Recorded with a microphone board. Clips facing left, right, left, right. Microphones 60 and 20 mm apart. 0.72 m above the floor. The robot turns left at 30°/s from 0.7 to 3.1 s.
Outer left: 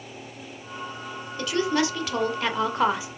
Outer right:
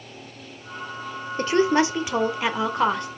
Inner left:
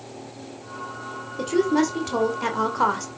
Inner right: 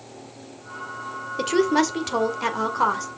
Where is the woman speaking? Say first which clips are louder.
Outer right 5 dB, inner right 1 dB; 140° right, 1.9 m; by 3.1 s 170° left, 1.9 m.